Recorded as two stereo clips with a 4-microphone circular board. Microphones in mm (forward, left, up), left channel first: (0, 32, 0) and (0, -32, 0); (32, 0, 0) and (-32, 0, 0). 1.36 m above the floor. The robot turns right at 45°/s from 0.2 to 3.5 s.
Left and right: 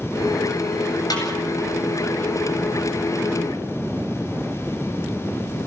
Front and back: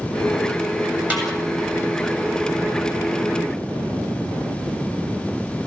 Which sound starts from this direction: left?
A snare drum, at 1.1 s.